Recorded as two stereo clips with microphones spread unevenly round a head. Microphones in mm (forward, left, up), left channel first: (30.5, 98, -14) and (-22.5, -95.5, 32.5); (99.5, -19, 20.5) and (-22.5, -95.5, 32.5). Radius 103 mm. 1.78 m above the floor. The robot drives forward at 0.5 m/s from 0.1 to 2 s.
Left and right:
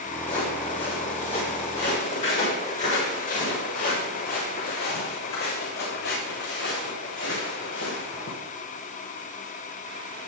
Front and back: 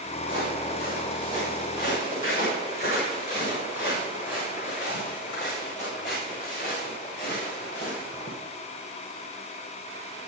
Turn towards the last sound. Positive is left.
turn(degrees=110)